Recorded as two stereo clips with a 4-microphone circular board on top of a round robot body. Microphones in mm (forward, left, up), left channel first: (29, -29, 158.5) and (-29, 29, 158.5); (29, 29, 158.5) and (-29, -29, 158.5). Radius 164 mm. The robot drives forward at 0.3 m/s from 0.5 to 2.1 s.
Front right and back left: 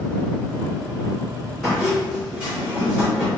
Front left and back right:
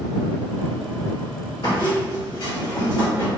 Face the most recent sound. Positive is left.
turn(degrees=55)